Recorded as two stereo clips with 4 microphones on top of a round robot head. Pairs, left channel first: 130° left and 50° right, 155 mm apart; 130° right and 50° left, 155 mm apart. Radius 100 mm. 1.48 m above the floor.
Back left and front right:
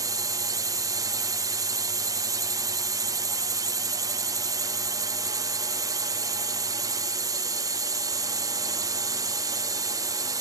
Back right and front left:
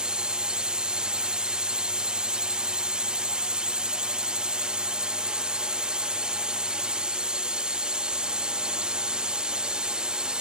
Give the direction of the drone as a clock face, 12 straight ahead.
1 o'clock.